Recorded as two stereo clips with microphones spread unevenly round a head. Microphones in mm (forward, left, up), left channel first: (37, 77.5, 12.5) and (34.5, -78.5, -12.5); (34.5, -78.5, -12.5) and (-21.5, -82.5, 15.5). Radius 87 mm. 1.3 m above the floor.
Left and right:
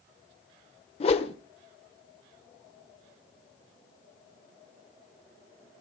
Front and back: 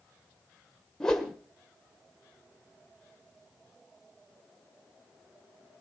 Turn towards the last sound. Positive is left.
turn(degrees=110)